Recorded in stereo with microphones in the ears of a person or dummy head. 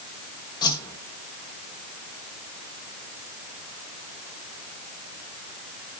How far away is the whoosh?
About 1.1 m.